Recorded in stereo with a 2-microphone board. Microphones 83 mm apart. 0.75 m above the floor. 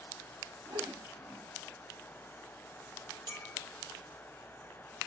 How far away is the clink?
About 1.5 m.